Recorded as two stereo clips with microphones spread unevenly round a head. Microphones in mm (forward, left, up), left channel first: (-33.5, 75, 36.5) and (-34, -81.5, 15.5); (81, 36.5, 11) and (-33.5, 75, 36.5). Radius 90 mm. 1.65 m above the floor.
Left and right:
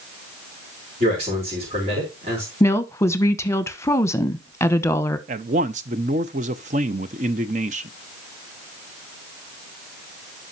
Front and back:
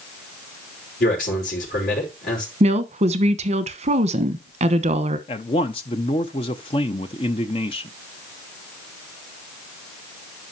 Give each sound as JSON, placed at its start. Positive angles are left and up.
{"t": 1.0, "sound": "a man speaking", "azimuth_deg": -35, "distance_m": 4.5}
{"t": 2.6, "sound": "a woman speaking", "azimuth_deg": 160, "distance_m": 1.1}
{"t": 5.3, "sound": "a man speaking", "azimuth_deg": -65, "distance_m": 0.6}